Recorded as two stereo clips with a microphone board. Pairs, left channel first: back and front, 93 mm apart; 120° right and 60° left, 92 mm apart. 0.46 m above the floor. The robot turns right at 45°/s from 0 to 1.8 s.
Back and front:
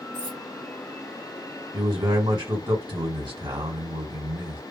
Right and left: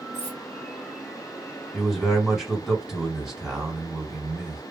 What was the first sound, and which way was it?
Cutlery clinking, 105° right.